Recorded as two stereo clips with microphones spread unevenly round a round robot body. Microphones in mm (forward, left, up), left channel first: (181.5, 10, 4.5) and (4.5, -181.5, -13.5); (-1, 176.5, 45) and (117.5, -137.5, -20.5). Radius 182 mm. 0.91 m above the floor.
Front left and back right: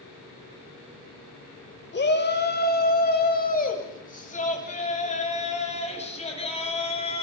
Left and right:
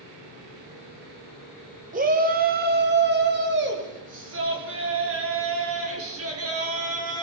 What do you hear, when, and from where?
1.9 s a shout: 5° right, 5 m; by 7.2 s 20° right, 10 m